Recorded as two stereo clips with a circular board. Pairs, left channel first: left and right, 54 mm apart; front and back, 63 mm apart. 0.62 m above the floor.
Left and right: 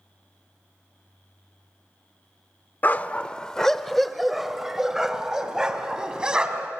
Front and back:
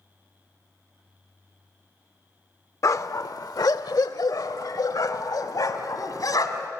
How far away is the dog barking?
About 0.6 m.